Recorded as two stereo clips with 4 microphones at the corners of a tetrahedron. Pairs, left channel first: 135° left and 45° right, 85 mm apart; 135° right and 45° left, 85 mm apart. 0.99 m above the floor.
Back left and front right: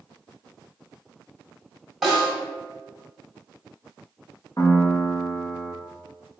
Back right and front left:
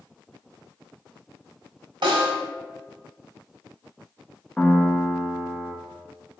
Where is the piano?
150° left, 0.8 m.